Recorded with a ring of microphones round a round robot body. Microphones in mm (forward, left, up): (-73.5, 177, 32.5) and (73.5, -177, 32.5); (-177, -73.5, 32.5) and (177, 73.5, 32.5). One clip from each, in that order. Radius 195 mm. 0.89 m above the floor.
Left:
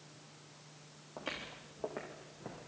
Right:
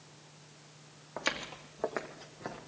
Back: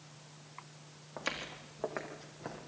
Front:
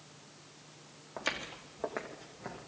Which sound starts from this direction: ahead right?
Footsteps, at 1.2 s.